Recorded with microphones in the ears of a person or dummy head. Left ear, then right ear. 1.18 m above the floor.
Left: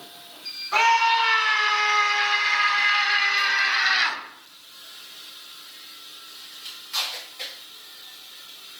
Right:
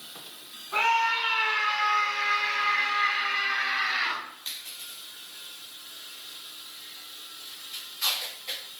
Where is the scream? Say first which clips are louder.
Left 5 dB; 70° left (ahead or behind), 8.5 m; by 4.2 s 50° left (ahead or behind), 6.5 m.